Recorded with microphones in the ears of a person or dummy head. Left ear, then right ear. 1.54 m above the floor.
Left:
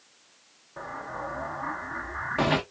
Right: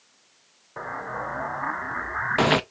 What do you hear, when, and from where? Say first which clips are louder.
0.8 s an explosion: right 4 dB; 35° right (ahead or behind), 0.6 m